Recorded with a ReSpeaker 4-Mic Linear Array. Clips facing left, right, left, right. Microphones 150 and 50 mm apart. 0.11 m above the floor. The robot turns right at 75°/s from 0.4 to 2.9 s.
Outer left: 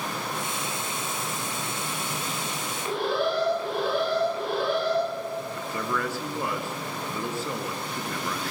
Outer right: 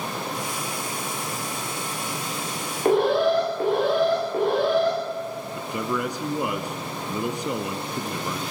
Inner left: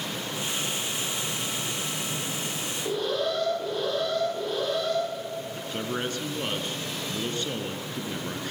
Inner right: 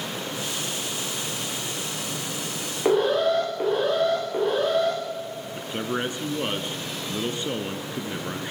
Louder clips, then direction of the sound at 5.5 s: Outer right 7 dB, inner right 5 dB; 20° right (ahead or behind).